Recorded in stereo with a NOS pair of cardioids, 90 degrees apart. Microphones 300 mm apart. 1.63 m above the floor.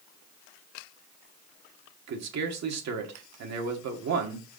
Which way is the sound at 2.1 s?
60° right.